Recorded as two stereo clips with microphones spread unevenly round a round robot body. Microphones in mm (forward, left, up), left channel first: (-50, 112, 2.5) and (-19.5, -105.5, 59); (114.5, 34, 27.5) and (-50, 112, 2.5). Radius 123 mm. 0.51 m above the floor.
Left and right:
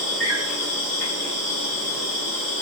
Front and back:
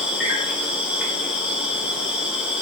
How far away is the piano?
No piano in this recording.